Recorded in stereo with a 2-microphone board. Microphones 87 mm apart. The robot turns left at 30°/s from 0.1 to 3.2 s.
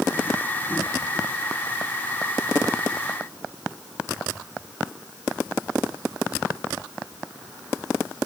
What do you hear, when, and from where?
Only background noise.